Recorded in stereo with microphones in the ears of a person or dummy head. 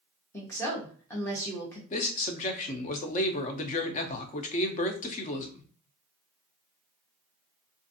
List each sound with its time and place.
0.3 s a woman speaking: 15° left (ahead or behind), 0.7 m
1.9 s a man speaking: 40° left (ahead or behind), 0.5 m